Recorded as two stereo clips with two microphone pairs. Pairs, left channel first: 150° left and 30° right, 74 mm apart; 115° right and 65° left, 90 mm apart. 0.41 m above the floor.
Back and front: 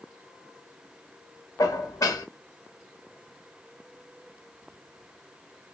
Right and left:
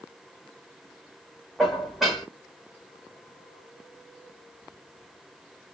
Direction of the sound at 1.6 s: 150° left.